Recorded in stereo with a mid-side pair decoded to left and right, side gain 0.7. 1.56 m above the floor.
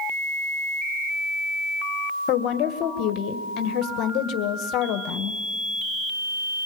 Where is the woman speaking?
55° left, 1.5 m.